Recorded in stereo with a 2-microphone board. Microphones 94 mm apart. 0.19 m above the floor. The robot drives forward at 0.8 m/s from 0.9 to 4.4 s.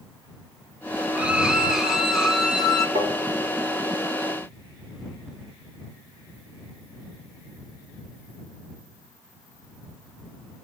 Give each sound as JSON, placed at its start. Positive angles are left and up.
{"t": 1.1, "sound": "a violin", "side_deg": -15, "distance_m": 0.6}
{"t": 3.0, "sound": "tapping", "side_deg": -80, "distance_m": 8.0}